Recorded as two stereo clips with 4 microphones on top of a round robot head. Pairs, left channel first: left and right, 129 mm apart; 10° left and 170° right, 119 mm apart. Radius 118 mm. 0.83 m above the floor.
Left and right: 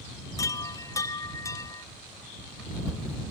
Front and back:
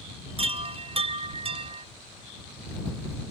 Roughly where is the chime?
Behind left.